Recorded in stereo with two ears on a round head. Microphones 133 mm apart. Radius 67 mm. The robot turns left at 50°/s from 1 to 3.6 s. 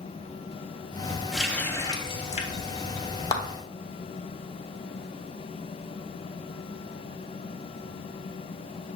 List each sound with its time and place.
1.3 s a running tap: centre (ahead or behind), 1.3 m; by 3.1 s 75° left (ahead or behind), 1.3 m
3.3 s a clap: 25° left (ahead or behind), 0.9 m; by 3.4 s 20° left (ahead or behind), 0.9 m